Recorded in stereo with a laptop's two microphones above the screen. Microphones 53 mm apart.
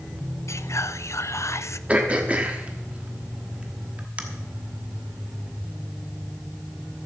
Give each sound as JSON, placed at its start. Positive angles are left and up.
{"t": 0.5, "sound": "whispering", "side_deg": 65, "distance_m": 0.6}
{"t": 1.9, "sound": "throat clearing", "side_deg": -25, "distance_m": 1.1}